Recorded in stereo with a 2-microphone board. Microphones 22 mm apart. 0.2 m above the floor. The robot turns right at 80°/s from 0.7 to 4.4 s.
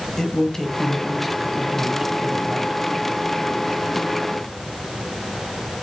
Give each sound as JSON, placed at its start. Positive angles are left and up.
{"t": 0.2, "sound": "a man speaking", "side_deg": 20, "distance_m": 1.0}